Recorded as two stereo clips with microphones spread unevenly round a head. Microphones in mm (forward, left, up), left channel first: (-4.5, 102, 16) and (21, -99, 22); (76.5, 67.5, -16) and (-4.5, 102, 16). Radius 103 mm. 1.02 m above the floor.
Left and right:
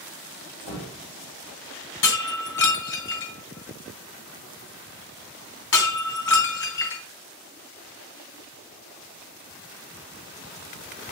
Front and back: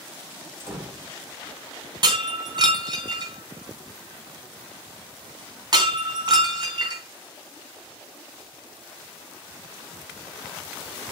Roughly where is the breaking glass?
Behind left.